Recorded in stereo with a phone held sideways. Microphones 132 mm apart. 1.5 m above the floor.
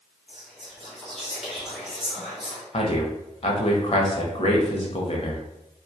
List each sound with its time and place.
0.3 s whispering: centre (ahead or behind), 1.2 m
2.7 s a man speaking: 50° left (ahead or behind), 0.7 m